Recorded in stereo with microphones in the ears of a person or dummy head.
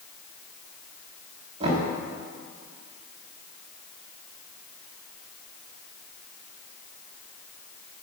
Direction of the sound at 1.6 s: 35° right (ahead or behind).